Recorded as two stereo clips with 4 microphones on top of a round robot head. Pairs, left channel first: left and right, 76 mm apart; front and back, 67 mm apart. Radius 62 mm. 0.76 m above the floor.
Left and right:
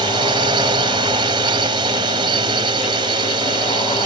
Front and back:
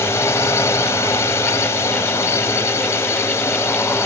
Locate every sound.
0.0 s a drone: 60° right